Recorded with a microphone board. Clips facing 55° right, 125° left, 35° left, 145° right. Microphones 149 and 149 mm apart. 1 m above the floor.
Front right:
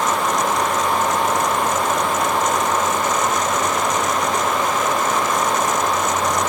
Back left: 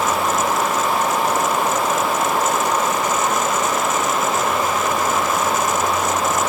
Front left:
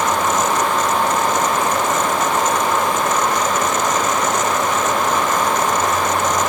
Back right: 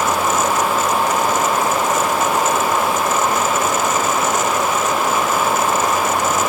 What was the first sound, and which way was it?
Only background noise.